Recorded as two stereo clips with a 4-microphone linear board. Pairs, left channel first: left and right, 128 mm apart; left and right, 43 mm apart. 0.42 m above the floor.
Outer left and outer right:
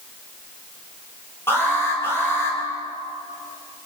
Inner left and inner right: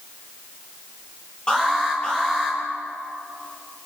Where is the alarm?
20° left (ahead or behind), 9.5 m.